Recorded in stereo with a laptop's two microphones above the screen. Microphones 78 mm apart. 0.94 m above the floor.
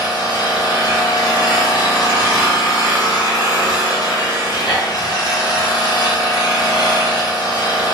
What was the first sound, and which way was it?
An engine running, 60° left (ahead or behind).